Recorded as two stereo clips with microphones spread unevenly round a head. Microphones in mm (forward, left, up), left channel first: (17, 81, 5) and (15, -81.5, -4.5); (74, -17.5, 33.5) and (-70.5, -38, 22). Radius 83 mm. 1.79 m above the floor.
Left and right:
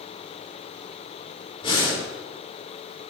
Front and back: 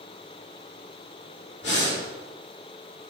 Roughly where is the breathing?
Ahead left.